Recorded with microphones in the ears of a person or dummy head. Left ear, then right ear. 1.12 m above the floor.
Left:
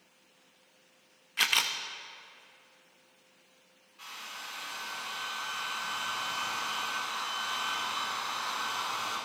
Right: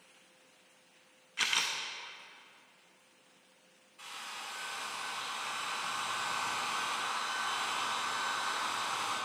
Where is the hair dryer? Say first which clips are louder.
Left 1 dB; 5° right (ahead or behind), 3.5 m.